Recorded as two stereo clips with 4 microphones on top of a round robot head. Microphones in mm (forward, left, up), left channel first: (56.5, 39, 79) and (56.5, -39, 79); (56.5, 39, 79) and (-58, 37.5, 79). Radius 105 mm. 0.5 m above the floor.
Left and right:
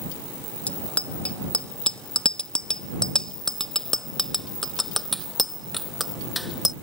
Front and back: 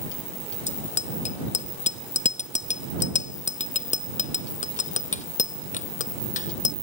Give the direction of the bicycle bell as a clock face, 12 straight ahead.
11 o'clock.